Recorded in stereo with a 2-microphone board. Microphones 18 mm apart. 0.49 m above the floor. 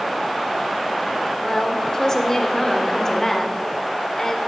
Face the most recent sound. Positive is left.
turn(degrees=30)  # may be behind; listen again after turning